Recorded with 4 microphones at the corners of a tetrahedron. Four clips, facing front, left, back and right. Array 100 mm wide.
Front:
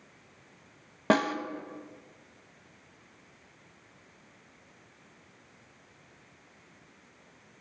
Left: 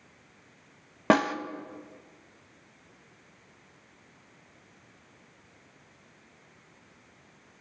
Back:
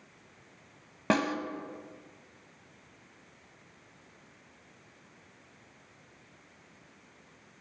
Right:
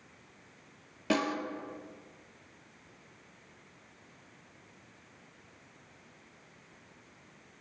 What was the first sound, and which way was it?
A snare drum, 75° left.